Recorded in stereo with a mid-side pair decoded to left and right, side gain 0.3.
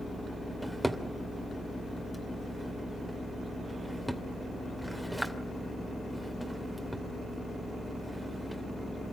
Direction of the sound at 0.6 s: 10° right.